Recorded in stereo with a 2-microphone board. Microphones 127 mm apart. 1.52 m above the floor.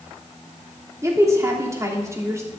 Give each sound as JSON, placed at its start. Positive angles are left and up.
{"t": 1.0, "sound": "a woman speaking", "side_deg": -25, "distance_m": 3.0}